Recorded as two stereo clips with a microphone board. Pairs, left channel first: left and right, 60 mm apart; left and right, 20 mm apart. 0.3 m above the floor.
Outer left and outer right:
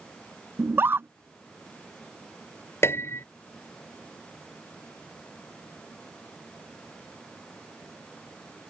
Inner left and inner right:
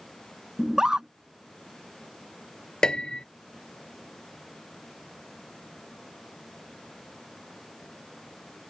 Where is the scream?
40° right (ahead or behind).